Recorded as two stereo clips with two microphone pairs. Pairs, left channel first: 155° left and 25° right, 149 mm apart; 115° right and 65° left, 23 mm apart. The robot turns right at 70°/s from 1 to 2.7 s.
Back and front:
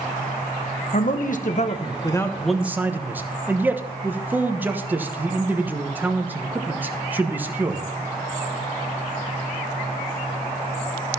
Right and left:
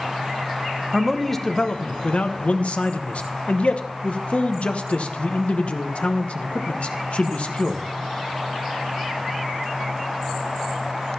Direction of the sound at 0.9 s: 135° left.